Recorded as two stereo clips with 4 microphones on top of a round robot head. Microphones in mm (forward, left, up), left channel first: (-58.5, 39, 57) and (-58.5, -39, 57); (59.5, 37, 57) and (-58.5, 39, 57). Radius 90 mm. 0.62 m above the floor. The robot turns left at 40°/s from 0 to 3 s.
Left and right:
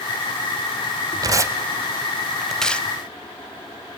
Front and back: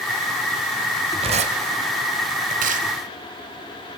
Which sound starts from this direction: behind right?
Tearing paper, at 1.2 s.